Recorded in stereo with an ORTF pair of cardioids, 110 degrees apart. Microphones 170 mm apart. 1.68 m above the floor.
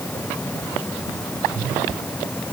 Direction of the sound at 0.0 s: 10° left.